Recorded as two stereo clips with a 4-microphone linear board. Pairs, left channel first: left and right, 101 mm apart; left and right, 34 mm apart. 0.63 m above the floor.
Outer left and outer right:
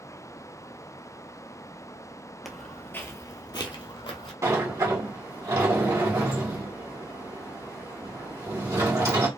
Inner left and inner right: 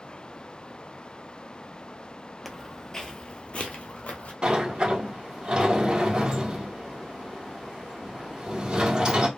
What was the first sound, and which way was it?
Footsteps, centre (ahead or behind).